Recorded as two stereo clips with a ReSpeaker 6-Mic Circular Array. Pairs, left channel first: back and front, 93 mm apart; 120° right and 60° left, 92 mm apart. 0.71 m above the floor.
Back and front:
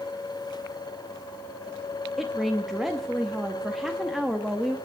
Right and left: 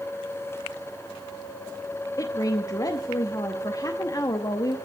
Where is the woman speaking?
90° right, 0.9 m.